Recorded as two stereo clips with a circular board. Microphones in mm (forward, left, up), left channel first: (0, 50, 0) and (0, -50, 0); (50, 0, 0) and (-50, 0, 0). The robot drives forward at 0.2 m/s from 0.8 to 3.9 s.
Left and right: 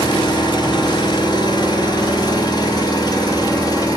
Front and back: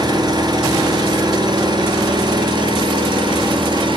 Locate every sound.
0.0 s an engine running: 130° left, 3.5 m; by 4.0 s 140° left, 4 m